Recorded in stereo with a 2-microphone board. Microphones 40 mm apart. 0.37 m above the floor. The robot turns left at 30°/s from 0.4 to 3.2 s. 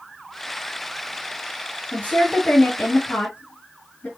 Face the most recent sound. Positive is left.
turn(degrees=60)  # may be behind; listen again after turning